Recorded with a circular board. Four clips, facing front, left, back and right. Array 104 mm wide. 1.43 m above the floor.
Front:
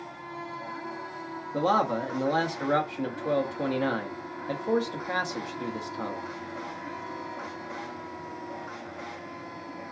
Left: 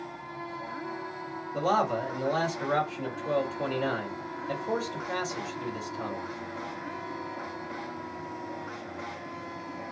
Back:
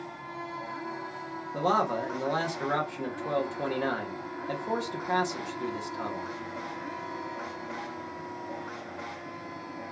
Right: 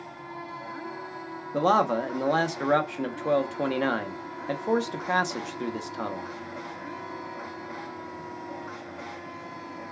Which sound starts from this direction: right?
A man speaking, at 1.5 s.